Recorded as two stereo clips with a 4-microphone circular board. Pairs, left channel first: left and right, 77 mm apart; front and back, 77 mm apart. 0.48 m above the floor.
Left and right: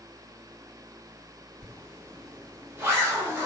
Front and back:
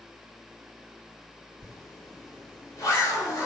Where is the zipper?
35° right, 1.0 m.